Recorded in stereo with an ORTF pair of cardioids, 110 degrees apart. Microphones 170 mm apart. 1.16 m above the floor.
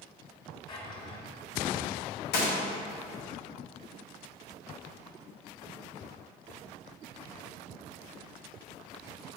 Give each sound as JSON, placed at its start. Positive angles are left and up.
{"t": 0.7, "sound": "a drawer", "azimuth_deg": 30, "distance_m": 3.0}
{"t": 2.3, "sound": "a gunshot", "azimuth_deg": 70, "distance_m": 2.5}